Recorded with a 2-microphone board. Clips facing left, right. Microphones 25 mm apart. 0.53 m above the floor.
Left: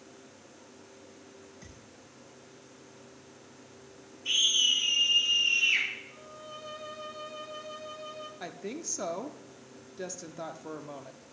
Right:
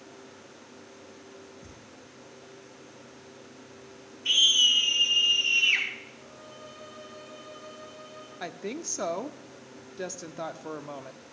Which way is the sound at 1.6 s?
75° left (ahead or behind).